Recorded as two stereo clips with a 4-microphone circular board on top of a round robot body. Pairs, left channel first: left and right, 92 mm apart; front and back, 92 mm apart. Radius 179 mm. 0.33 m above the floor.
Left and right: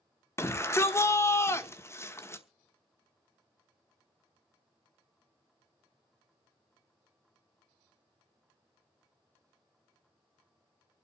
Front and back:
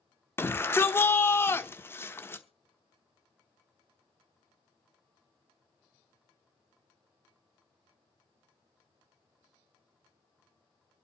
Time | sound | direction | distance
0.4 | a shout | 50° left | 1.5 m